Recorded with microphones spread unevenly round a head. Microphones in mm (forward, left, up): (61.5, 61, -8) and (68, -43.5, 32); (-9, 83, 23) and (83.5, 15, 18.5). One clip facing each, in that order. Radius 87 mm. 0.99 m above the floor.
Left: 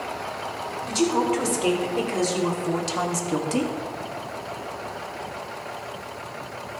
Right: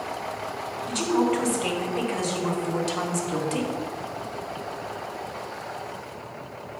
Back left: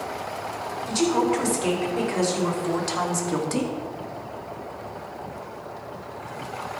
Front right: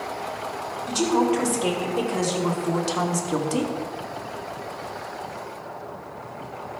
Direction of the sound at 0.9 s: 40° left.